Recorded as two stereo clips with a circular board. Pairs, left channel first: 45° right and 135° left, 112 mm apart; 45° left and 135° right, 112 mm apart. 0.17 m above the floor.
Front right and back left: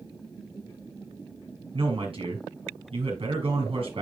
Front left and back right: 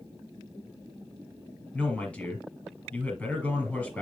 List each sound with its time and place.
1.7 s a man speaking: 125° left, 4 m